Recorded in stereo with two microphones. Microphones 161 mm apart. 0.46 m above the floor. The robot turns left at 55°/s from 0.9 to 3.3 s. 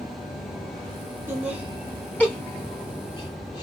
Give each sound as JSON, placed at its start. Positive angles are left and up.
{"t": 1.3, "sound": "laughter", "side_deg": -15, "distance_m": 1.0}